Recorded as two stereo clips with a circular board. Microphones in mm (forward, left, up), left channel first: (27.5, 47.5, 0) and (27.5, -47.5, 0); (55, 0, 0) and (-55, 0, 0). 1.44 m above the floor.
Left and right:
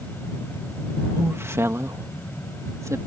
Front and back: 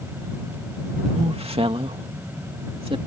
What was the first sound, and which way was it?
A woman speaking, 155° right.